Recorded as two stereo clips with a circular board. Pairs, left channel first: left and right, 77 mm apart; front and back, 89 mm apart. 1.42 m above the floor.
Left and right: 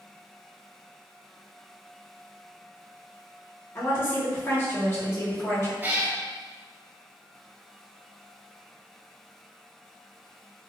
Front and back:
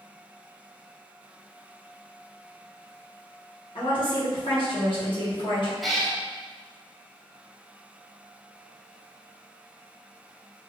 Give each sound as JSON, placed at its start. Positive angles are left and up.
{"t": 3.8, "sound": "a woman speaking", "azimuth_deg": 30, "distance_m": 1.2}
{"t": 5.8, "sound": "a cat meowing", "azimuth_deg": -90, "distance_m": 0.6}